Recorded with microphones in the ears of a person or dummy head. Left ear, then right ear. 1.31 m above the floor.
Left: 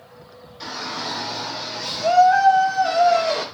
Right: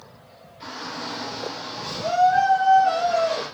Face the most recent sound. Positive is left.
turn(degrees=55)  # may be behind; listen again after turning